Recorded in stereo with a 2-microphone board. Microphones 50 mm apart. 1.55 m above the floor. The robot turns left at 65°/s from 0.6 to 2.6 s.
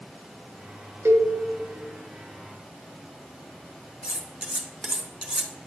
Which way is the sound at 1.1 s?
65° right (ahead or behind).